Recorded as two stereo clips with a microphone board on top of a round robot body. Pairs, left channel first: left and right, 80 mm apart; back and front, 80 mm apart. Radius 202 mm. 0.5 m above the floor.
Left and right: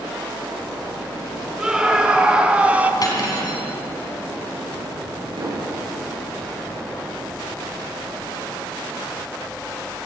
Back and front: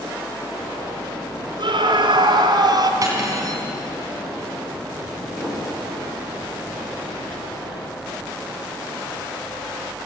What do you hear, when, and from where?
1.6 s a scream: 10° right, 3 m; by 2.9 s 20° right, 2 m
3.0 s cutlery clinking: 50° left, 4 m
5.4 s an explosion: 90° right, 5.5 m